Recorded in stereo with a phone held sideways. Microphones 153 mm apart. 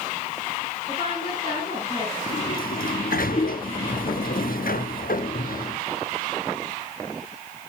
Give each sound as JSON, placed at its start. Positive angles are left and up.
{"t": 0.9, "sound": "a woman speaking", "side_deg": 35, "distance_m": 8.0}
{"t": 2.3, "sound": "a sliding door", "side_deg": 70, "distance_m": 0.9}